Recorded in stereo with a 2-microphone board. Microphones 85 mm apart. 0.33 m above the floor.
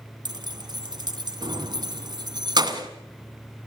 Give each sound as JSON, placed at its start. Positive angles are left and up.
{"t": 0.2, "sound": "keys jangling", "side_deg": -55, "distance_m": 2.0}